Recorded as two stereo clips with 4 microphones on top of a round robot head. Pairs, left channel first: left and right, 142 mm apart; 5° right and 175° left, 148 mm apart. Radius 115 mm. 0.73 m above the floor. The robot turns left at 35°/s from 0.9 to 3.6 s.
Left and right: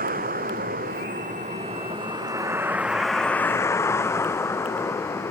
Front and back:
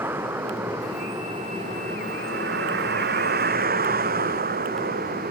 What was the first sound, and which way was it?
A vehicle, 105° right.